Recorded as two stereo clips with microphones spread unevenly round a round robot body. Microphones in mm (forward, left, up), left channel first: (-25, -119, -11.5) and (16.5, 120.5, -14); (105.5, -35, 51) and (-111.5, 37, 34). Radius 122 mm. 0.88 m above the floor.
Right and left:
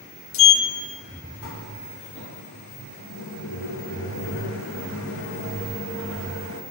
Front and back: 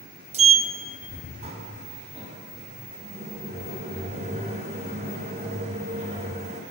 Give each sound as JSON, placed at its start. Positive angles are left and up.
{"t": 0.3, "sound": "a sliding door", "azimuth_deg": -135, "distance_m": 0.5}